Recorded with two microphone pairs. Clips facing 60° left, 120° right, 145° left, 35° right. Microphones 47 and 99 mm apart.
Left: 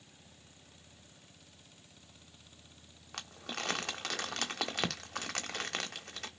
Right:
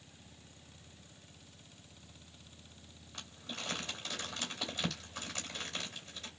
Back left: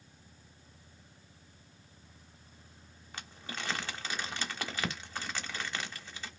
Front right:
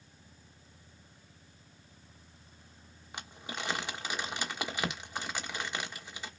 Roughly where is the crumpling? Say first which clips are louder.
Left 4 dB, front right 2 dB; ahead left.